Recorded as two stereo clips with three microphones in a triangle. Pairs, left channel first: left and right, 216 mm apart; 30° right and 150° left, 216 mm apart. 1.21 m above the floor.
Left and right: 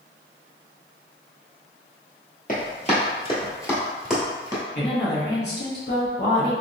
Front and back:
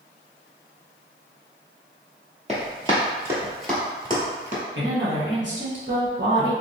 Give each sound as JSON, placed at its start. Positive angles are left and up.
{"t": 2.5, "sound": "running footsteps", "azimuth_deg": 110, "distance_m": 1.6}
{"t": 4.8, "sound": "a woman speaking", "azimuth_deg": 125, "distance_m": 1.2}